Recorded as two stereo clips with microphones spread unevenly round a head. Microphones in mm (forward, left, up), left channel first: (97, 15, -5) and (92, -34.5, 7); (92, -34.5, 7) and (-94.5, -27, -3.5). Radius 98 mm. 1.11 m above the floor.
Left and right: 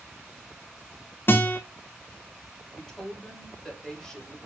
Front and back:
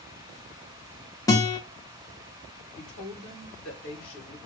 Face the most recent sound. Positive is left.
turn(degrees=5)